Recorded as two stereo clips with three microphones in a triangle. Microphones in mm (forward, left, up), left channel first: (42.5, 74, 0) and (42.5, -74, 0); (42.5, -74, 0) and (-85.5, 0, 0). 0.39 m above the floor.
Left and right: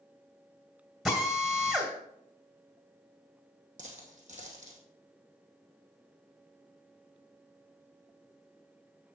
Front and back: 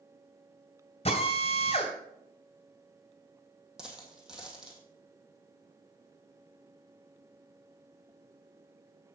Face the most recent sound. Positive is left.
turn(degrees=-125)